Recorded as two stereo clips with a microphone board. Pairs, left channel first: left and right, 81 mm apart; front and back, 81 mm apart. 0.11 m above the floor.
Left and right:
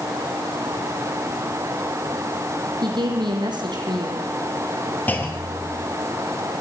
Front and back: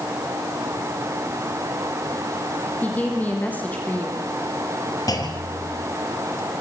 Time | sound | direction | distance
2.8 | a woman speaking | 70° right | 4.5 m
5.1 | a clunk | 25° left | 3 m